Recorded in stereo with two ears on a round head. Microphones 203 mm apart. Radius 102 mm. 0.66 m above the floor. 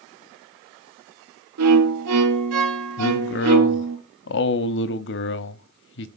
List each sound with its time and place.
1.6 s a violin: 80° right, 1.0 m
3.0 s a man speaking: 55° left (ahead or behind), 0.8 m